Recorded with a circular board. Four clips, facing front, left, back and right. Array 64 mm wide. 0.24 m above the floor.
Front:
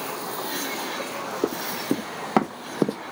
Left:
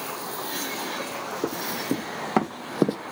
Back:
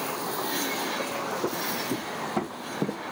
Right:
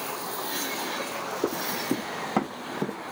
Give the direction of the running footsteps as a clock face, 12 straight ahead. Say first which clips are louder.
Even, front 3 dB; 12 o'clock.